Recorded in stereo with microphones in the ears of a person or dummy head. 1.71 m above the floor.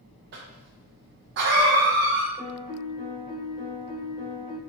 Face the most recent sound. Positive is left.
turn(degrees=25)  # may be behind; listen again after turning